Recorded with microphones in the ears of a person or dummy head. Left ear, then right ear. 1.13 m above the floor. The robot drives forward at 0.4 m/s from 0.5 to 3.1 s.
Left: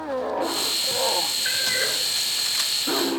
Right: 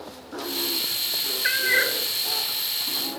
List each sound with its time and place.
1.4 s a cat meowing: 70° right (ahead or behind), 1.0 m; by 2.0 s 65° right (ahead or behind), 1.1 m